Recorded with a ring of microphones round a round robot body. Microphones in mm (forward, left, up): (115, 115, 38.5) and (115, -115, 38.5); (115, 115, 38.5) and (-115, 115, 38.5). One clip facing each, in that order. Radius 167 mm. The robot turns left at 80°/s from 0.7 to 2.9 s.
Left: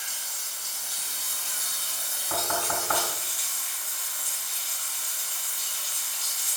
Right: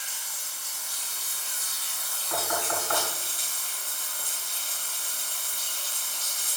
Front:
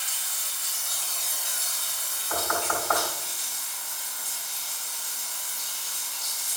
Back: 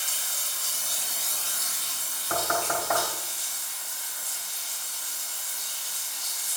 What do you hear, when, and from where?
0.0 s running water: 135° left, 1.3 m; by 6.6 s 40° right, 1.3 m
2.3 s knocking: 150° left, 3.5 m; by 3.0 s 105° left, 3.5 m